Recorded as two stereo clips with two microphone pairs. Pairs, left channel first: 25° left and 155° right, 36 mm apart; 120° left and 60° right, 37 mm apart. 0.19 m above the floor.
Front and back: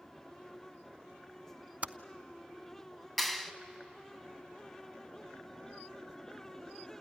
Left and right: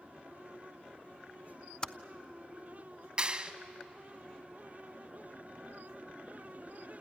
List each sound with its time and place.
1.8 s typing on a keyboard: straight behind, 0.5 m
3.2 s a clap: 50° right, 1.1 m